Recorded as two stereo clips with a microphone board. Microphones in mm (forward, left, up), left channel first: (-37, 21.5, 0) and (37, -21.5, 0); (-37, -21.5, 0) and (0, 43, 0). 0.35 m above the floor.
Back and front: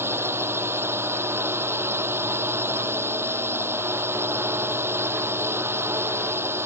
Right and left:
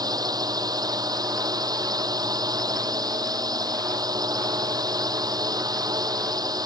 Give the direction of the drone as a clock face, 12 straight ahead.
11 o'clock.